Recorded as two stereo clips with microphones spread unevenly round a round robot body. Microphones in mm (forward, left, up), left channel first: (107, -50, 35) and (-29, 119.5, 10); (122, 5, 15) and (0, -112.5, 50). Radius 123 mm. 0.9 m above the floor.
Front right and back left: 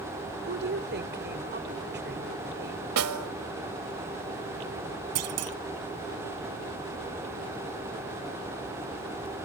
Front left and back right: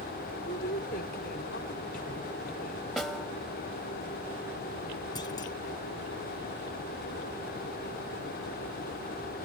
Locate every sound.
0.5 s a woman speaking: 90° left
3.0 s a snare drum: 140° left
5.2 s a clunk: 120° left